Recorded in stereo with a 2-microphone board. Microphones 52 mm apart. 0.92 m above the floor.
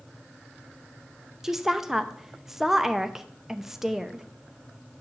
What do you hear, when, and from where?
1.4 s a woman speaking: 5° right (ahead or behind), 0.6 m